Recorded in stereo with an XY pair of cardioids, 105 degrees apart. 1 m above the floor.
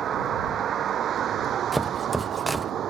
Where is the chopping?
10° right.